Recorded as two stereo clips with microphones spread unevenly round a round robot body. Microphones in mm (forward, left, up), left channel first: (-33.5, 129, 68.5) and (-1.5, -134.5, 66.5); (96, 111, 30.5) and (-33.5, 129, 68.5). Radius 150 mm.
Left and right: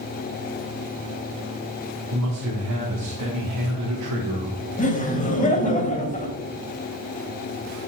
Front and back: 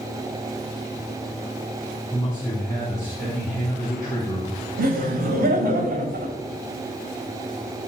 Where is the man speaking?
70° right, 1.5 m.